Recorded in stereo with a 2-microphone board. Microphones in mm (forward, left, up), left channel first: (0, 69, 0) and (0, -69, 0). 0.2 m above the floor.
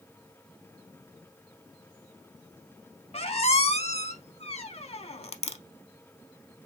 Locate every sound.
3.1 s a squeak: 50° left (ahead or behind), 0.5 m